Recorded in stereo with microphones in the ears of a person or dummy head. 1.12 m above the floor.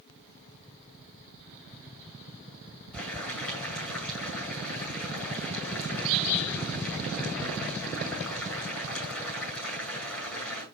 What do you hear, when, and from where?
2.9 s boiling: 10° left (ahead or behind), 10 m